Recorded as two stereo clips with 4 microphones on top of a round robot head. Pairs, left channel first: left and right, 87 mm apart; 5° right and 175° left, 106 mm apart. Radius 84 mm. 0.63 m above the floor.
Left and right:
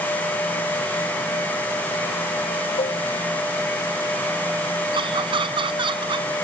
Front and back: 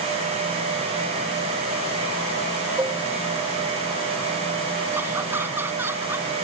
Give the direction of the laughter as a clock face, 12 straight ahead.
4 o'clock.